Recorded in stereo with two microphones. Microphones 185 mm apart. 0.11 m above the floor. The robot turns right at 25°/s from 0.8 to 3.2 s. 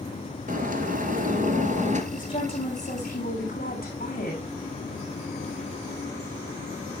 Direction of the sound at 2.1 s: 25° left (ahead or behind).